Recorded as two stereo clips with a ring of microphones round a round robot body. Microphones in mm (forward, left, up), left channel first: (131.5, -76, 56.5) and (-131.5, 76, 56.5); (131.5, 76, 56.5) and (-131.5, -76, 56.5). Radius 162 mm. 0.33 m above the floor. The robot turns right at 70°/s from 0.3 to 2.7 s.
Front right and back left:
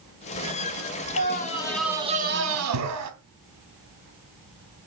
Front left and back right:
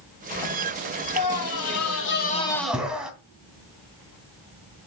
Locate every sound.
1.2 s a scream: 15° left, 3 m; by 3.1 s 125° left, 3 m